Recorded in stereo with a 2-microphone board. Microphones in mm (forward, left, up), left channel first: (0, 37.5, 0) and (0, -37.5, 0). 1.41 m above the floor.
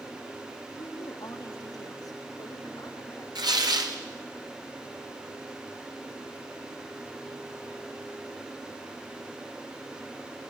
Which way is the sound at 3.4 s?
75° right (ahead or behind).